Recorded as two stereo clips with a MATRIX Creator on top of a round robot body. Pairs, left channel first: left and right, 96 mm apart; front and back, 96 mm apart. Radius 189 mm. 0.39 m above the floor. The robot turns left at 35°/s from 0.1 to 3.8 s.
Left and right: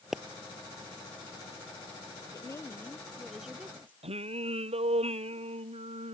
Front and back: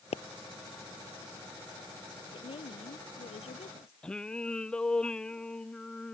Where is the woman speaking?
35° left; by 3.9 s 15° right.